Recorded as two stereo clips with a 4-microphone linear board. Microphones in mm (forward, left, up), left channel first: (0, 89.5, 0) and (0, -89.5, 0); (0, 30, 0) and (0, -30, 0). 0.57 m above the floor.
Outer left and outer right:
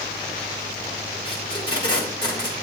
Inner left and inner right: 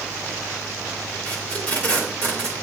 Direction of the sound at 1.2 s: 25° left (ahead or behind).